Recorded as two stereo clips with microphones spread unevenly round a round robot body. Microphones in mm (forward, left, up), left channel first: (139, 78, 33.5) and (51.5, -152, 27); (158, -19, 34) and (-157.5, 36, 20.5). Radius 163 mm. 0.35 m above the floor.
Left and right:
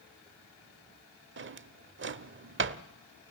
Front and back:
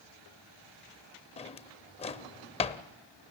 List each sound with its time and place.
1.4 s a drawer: 80° right, 0.8 m